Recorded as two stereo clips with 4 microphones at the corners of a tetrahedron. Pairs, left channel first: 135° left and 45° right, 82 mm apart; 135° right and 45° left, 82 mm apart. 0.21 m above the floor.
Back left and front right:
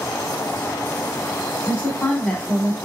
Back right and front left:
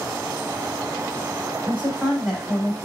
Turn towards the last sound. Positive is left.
turn(degrees=-145)